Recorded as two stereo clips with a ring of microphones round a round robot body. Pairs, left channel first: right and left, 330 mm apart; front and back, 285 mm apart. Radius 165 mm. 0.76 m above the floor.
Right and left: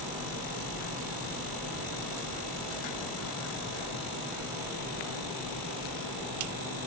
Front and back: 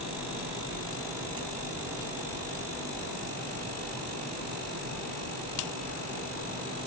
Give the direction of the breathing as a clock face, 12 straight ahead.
I don't hear breathing.